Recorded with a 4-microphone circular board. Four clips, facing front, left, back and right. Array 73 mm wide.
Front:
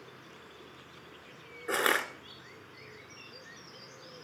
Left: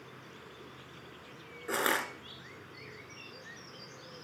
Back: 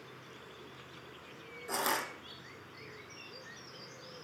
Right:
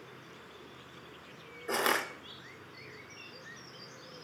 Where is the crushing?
5° left, 1.4 m.